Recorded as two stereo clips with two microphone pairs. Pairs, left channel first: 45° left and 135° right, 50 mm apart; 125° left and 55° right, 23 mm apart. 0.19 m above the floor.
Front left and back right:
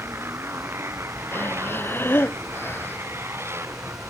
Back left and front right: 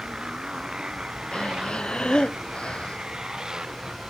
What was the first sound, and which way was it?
A motorcycle, 105° right.